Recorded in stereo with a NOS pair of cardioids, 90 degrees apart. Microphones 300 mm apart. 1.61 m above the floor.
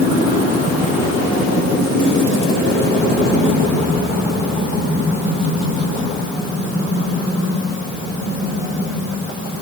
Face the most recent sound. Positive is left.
No sound to turn to.